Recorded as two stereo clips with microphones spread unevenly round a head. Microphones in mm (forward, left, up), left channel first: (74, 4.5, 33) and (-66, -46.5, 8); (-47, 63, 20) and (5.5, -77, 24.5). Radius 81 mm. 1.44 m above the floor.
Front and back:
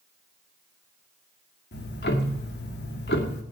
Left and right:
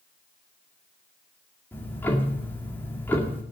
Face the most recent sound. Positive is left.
turn(degrees=30)